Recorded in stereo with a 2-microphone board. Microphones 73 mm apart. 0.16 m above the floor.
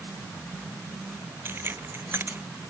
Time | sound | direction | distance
1.4 | keys jangling | 30° right (ahead or behind) | ?